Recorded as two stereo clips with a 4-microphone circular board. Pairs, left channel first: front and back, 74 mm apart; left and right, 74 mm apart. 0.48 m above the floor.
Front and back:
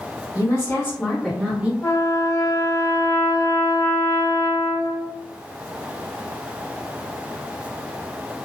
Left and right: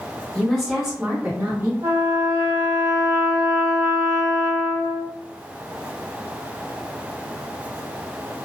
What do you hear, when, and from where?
0.3 s a woman speaking: 10° left, 1.9 m; by 1.7 s 115° right, 1.6 m
1.8 s a trumpet: 40° right, 2.0 m